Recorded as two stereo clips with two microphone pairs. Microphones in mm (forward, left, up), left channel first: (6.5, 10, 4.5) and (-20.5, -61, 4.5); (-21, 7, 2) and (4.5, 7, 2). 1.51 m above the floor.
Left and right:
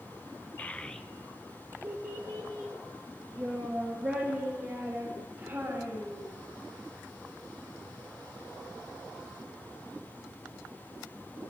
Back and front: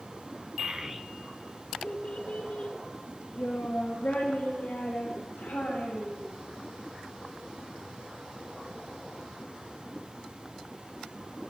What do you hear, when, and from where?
0.6 s a child speaking: 10° left, 0.6 m; by 6.3 s 170° right, 4 m